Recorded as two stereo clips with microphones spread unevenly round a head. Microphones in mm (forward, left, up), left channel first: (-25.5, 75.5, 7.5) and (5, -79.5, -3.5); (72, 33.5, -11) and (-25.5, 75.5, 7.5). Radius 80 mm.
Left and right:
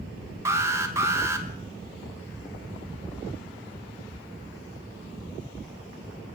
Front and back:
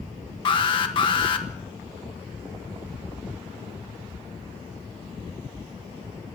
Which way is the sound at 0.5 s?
10° right.